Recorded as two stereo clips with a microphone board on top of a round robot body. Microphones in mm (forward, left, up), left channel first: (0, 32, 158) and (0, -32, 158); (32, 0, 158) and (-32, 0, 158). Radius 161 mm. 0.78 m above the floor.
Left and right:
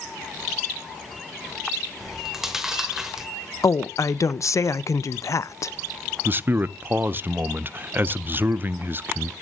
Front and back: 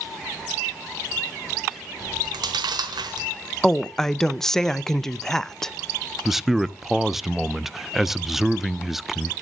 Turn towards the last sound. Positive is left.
turn(degrees=-95)